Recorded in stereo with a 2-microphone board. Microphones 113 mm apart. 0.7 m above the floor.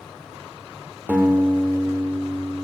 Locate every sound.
1.1 s a guitar: 15° right (ahead or behind), 1.0 m